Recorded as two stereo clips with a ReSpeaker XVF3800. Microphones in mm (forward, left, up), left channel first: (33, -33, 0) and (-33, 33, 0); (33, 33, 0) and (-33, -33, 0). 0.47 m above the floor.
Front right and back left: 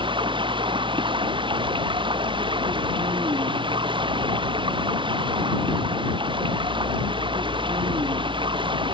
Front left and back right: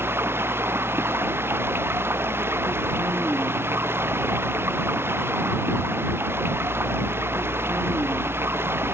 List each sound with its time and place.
0.0 s running water: 160° left